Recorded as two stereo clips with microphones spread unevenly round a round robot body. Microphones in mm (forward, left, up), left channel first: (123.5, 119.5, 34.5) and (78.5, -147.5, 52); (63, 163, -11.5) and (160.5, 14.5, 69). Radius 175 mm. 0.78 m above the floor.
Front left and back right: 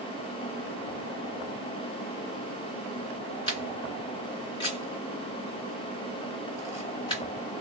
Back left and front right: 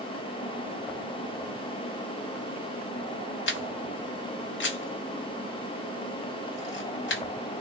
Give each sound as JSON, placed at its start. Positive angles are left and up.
{"t": 3.5, "sound": "a camera shutter", "azimuth_deg": 150, "distance_m": 0.6}